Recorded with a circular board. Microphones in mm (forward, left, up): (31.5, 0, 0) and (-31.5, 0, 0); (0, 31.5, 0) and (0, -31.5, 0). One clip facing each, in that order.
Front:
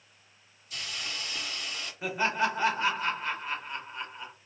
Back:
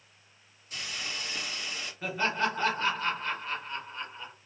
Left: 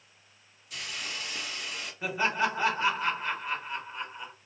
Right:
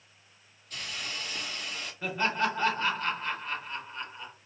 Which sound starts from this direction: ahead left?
Laughter, at 2.0 s.